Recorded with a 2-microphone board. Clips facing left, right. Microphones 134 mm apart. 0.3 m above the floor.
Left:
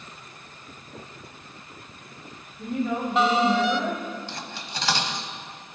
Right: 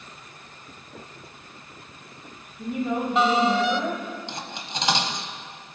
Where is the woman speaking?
10° right (ahead or behind), 1.8 m.